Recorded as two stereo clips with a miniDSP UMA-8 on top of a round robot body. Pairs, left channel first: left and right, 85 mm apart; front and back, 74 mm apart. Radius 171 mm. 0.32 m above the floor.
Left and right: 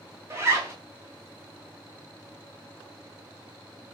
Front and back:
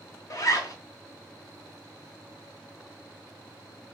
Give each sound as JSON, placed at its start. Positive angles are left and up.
{"t": 0.3, "sound": "a zipper", "azimuth_deg": -35, "distance_m": 0.8}